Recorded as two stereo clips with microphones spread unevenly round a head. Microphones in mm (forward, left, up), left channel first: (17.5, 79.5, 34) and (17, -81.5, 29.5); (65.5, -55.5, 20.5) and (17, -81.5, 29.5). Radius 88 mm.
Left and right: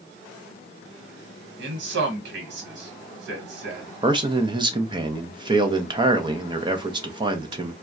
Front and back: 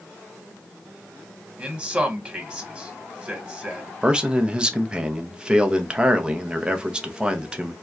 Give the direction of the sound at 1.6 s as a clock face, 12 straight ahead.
3 o'clock.